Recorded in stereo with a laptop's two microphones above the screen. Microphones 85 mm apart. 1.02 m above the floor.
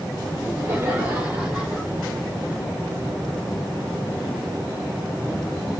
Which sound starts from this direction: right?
Laughter, at 0.4 s.